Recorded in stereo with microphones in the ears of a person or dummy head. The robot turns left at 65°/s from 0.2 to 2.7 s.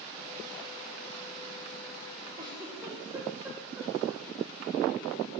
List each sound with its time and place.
2.4 s a giggle: 35° right (ahead or behind), 1.4 m; by 4.2 s 10° right (ahead or behind), 1.4 m